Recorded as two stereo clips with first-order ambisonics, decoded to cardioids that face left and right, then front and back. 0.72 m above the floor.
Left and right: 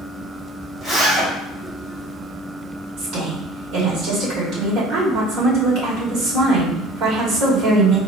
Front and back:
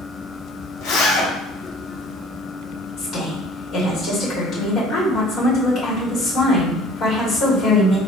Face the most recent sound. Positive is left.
turn(degrees=-55)